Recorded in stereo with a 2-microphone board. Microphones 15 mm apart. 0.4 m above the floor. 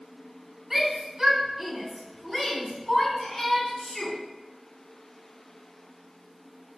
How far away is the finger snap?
I don't hear a finger snap.